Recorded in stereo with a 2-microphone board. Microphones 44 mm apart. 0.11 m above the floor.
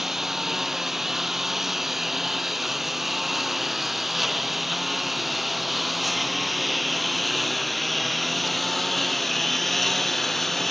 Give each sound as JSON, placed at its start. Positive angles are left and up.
{"t": 0.0, "sound": "a lawn mower", "side_deg": -10}